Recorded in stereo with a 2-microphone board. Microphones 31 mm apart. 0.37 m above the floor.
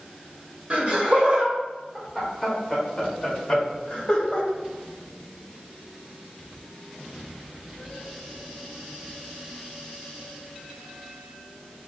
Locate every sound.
0.7 s laughter: 40° right (ahead or behind), 1.8 m; by 4.5 s 30° left (ahead or behind), 1.9 m